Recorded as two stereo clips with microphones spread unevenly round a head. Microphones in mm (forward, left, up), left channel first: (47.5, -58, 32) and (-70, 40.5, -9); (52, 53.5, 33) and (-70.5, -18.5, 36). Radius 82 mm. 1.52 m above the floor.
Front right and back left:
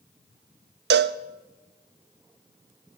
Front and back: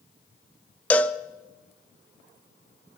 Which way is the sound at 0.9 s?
110° left.